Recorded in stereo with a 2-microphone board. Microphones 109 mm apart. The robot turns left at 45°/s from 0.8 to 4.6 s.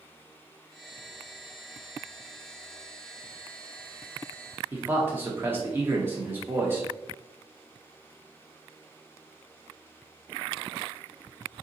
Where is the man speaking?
20° right (ahead or behind), 0.7 m.